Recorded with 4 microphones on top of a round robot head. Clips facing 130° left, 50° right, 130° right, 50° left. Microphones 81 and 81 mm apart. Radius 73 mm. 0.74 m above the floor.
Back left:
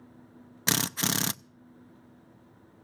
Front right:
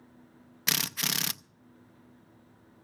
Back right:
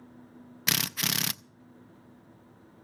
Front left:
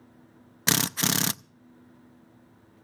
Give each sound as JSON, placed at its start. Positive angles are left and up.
{"t": 0.7, "sound": "a drill", "azimuth_deg": 90, "distance_m": 0.6}